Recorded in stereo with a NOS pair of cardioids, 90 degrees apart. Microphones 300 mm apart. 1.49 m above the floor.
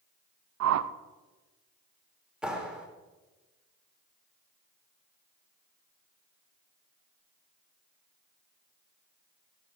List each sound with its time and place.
0.6 s a whoosh: 60° right, 0.7 m
2.4 s a clap: 5° right, 3 m